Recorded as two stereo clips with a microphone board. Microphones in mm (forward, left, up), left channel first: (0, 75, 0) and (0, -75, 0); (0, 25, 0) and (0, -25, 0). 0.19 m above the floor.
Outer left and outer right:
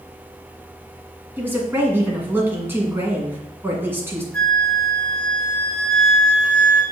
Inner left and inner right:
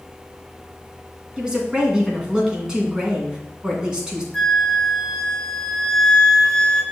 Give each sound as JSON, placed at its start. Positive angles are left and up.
{"t": 1.4, "sound": "a woman speaking", "side_deg": -15, "distance_m": 2.0}
{"t": 4.3, "sound": "a flute", "side_deg": 5, "distance_m": 1.1}